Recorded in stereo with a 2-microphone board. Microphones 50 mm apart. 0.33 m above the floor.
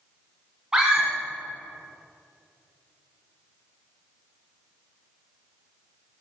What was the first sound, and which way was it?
A scream, 10° right (ahead or behind).